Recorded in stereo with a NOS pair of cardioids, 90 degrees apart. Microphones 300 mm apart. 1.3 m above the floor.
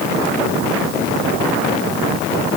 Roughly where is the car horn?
No car horn in this recording.